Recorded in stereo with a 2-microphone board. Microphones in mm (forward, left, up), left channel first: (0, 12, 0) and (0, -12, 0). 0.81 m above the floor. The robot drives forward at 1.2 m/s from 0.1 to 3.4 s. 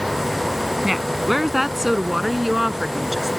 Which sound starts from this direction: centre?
A woman speaking, at 0.8 s.